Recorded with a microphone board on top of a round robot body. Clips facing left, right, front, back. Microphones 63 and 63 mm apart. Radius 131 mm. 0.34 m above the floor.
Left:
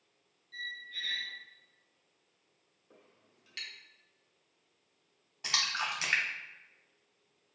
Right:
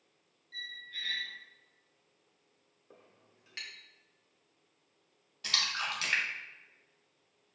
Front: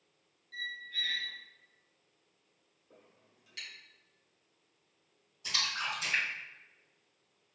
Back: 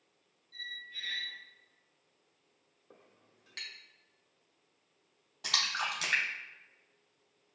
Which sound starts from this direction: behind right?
A clink, at 2.9 s.